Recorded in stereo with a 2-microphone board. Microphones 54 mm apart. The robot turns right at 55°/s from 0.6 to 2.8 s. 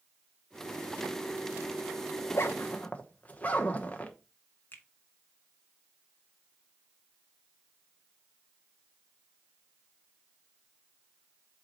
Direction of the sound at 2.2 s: 60° left (ahead or behind).